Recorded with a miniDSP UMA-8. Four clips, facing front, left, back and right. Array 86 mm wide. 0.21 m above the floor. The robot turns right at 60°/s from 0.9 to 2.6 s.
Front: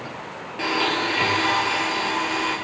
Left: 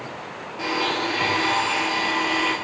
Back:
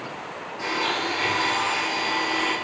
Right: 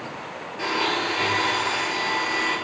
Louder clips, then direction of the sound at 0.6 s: Even, front 3 dB; straight ahead.